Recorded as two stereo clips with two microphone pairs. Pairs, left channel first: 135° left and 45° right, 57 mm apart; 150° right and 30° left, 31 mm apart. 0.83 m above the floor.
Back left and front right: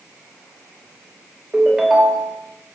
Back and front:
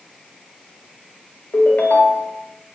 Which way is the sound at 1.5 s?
120° right.